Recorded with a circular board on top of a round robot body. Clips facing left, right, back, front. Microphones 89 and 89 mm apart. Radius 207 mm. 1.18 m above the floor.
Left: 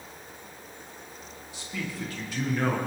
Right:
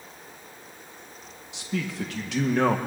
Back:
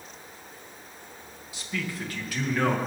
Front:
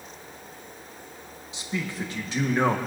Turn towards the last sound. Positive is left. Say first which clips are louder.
# right 5 dB, front 2 dB
turn(degrees=-70)